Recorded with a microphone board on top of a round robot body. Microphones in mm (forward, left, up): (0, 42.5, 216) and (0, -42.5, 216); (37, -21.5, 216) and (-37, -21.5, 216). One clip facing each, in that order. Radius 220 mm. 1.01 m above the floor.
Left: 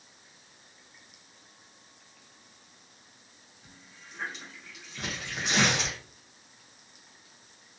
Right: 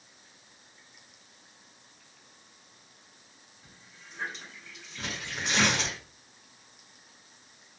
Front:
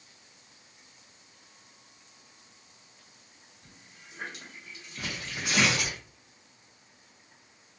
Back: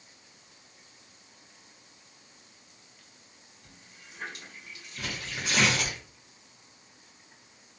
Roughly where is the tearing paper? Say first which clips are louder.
Left 1 dB, even; ahead left.